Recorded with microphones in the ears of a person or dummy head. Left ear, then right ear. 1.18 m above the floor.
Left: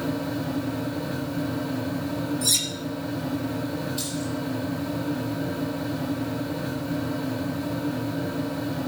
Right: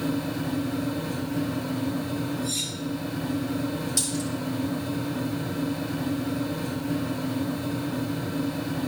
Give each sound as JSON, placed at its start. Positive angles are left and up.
{"t": 0.0, "sound": "a fan", "side_deg": -40, "distance_m": 2.5}
{"t": 2.4, "sound": "cutlery clinking", "side_deg": 70, "distance_m": 1.7}
{"t": 4.0, "sound": "a dropped coin", "side_deg": -80, "distance_m": 6.5}